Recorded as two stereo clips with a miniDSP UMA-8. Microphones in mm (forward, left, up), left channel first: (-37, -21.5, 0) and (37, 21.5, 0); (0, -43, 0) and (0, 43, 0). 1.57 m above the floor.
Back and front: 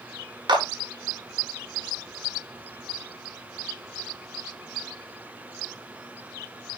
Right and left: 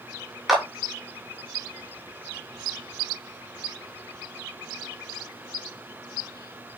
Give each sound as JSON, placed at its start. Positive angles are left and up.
{"t": 0.5, "sound": "a clap", "azimuth_deg": 5, "distance_m": 4.5}